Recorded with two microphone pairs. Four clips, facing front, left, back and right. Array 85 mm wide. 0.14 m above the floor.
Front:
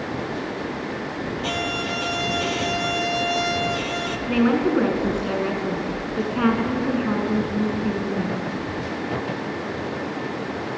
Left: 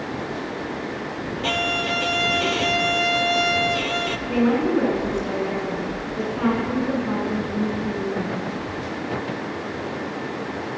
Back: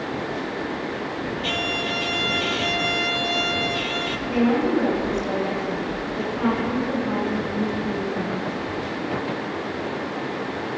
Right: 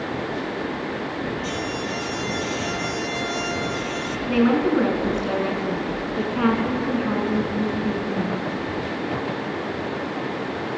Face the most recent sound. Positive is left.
turn(degrees=-35)